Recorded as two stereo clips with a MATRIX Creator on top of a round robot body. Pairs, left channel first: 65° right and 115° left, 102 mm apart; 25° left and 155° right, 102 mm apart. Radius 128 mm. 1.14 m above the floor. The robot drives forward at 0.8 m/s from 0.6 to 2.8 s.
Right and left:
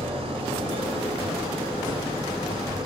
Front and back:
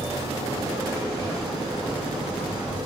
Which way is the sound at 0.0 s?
145° left.